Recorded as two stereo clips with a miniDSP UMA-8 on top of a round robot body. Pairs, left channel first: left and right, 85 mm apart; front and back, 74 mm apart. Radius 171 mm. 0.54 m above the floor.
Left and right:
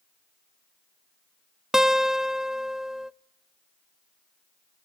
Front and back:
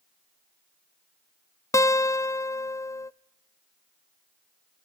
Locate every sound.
1.7 s a guitar: 10° right, 0.7 m